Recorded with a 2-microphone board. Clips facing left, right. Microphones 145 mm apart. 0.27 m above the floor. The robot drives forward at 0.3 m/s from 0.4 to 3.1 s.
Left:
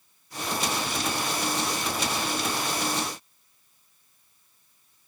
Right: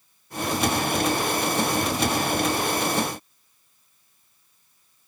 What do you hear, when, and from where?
Only background noise.